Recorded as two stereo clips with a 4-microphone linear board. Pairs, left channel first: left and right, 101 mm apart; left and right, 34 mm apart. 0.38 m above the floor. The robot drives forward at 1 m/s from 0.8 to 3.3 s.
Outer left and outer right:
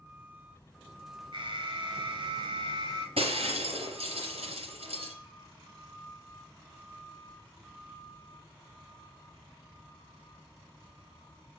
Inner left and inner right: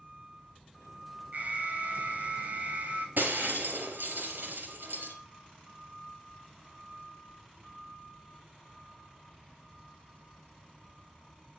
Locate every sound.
1.3 s an alarm: 55° right (ahead or behind), 3 m; by 3.1 s 50° right (ahead or behind), 3 m
3.2 s breaking glass: 80° right, 4.5 m